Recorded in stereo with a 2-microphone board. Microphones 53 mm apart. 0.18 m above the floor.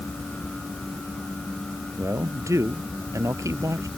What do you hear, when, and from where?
2.0 s a man speaking: 65° right (ahead or behind)